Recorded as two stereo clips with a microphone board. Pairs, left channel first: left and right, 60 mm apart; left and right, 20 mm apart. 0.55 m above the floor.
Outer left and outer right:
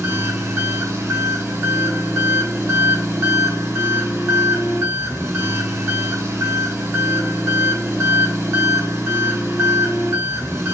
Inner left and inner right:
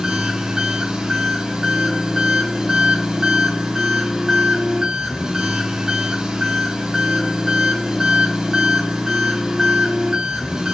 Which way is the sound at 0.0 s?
50° right (ahead or behind).